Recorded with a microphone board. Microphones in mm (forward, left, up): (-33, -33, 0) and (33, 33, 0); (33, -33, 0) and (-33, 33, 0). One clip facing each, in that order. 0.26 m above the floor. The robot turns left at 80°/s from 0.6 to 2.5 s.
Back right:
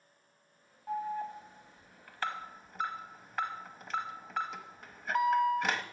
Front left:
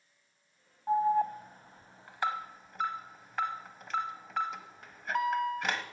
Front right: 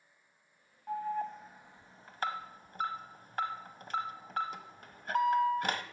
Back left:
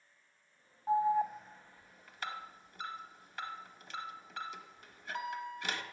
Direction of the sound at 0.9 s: 85° left.